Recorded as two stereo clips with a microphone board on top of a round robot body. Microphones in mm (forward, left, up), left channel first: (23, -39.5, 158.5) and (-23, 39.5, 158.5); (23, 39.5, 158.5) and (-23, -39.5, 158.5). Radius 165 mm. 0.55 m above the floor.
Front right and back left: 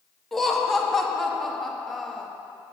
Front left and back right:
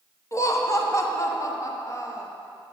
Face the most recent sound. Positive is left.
turn(degrees=25)